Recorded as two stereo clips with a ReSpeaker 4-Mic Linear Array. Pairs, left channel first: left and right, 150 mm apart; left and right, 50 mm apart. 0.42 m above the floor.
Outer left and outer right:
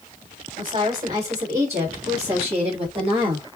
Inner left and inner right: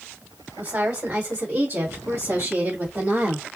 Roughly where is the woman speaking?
Right.